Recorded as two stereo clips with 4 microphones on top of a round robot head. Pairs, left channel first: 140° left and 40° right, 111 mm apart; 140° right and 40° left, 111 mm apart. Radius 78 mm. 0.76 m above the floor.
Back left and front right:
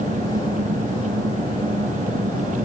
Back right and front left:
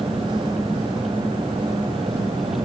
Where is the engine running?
45° right.